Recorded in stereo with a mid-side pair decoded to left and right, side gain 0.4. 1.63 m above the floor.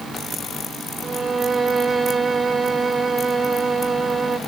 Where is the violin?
30° right, 3 m.